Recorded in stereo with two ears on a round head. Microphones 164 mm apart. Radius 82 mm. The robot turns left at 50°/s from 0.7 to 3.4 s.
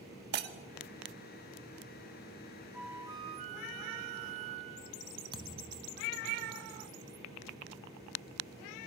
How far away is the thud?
About 1.0 m.